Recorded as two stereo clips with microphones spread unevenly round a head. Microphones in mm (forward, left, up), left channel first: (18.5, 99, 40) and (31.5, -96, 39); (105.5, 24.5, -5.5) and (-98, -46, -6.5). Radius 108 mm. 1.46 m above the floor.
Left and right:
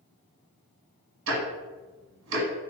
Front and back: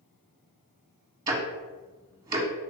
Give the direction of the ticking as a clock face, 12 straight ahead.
3 o'clock.